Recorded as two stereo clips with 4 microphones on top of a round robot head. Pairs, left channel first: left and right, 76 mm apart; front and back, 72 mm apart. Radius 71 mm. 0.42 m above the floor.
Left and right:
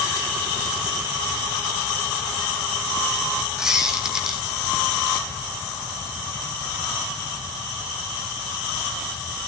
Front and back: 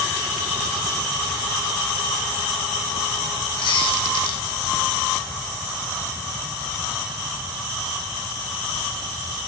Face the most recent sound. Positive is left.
turn(degrees=-10)